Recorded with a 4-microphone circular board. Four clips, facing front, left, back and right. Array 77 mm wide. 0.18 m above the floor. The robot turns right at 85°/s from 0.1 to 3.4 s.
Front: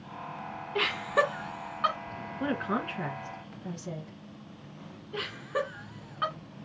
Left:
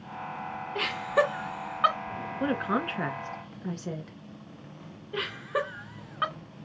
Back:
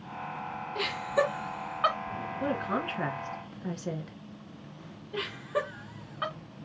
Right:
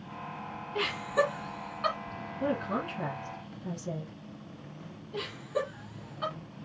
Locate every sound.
0.8 s laughter: 10° left, 2 m; by 2.0 s 110° left, 2 m
2.4 s a woman speaking: 55° left, 2 m; by 4.2 s 140° left, 2 m
5.1 s laughter: 90° left, 2.5 m